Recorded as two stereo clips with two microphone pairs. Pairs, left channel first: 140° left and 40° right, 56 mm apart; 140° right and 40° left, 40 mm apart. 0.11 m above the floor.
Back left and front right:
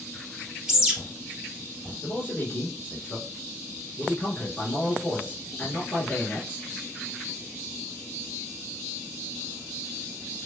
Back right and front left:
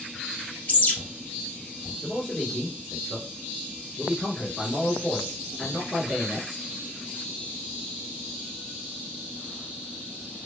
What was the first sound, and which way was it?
A bird, 115° right.